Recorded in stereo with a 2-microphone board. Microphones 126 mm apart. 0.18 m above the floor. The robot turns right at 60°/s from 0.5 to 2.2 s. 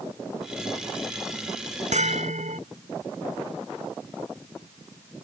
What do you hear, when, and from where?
1.9 s a bell: 75° right (ahead or behind); by 2.6 s 85° right